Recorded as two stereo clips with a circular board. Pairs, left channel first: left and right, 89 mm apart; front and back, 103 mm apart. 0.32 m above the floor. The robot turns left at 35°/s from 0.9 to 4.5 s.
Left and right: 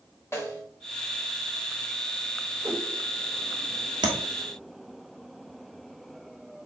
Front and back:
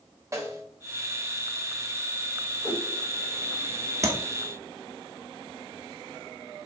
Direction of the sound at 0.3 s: 135° left.